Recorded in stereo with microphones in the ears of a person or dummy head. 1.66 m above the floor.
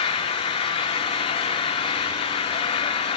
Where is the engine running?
30° left (ahead or behind), 2.5 m.